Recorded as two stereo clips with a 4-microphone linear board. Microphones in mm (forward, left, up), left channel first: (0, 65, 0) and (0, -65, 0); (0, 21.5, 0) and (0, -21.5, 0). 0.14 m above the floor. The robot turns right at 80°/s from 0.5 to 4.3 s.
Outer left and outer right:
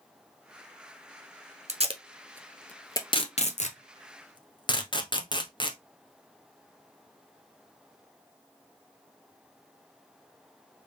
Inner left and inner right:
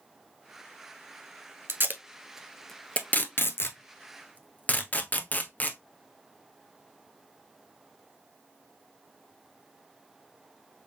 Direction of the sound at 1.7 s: 60° right (ahead or behind).